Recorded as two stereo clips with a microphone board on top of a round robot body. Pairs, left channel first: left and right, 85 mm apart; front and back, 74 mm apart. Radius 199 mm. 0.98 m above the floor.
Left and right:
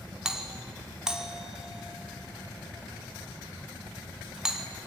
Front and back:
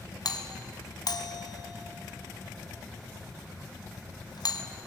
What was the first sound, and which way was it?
A doorbell, 10° right.